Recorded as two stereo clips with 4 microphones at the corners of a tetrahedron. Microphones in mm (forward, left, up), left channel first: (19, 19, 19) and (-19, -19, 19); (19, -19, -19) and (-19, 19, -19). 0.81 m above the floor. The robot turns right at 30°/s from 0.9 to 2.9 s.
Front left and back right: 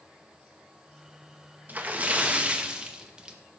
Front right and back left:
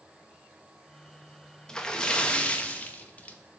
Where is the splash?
110° right, 0.7 m; by 3.4 s 75° right, 0.7 m.